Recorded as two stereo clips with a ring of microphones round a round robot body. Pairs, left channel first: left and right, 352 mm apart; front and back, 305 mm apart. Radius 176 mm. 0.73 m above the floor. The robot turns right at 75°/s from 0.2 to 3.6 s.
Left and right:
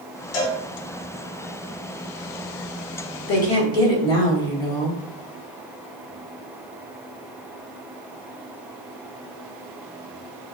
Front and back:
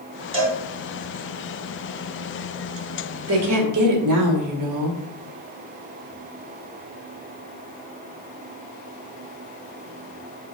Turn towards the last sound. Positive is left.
turn(degrees=170)